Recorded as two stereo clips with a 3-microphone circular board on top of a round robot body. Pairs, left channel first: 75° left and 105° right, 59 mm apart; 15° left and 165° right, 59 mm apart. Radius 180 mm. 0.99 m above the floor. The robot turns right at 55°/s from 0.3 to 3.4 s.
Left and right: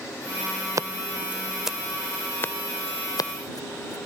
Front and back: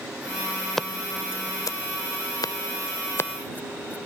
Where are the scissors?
70° right; by 4.0 s 75° left.